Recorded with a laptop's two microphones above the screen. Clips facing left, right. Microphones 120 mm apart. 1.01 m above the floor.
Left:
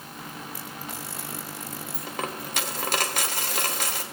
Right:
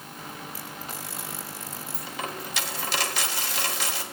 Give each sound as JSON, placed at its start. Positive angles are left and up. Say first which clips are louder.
{"t": 1.9, "sound": "a dropped coin", "louder": "left 2 dB", "side_deg": 45, "distance_m": 1.2}